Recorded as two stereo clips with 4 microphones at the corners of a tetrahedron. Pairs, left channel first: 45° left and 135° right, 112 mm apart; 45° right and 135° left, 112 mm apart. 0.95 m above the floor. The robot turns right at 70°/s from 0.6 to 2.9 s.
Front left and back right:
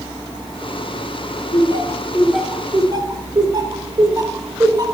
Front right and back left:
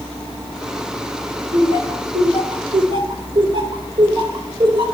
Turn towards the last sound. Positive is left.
turn(degrees=175)